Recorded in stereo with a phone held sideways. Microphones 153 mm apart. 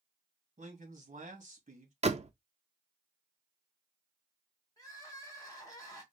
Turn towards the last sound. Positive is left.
turn(degrees=20)  # may be behind; listen again after turning